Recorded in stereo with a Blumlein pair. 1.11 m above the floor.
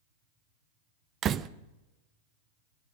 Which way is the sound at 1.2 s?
30° right.